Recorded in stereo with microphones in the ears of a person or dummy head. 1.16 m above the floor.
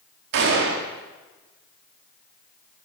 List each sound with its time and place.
0.3 s a gunshot: 55° right (ahead or behind), 1.0 m